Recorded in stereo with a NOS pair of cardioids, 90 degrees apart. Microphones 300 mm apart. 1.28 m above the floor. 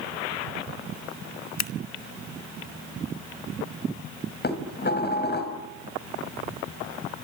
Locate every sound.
1.6 s scissors: 65° left, 1.4 m
4.4 s dishes clattering: 35° left, 5 m